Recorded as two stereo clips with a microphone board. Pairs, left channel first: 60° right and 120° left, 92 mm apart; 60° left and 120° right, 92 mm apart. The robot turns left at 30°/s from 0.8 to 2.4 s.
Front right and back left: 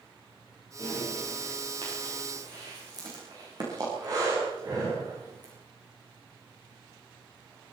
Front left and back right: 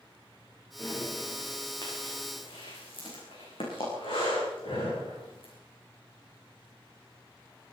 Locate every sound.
0.8 s breathing: 125° left, 9.5 m; by 5.5 s 75° left, 9.5 m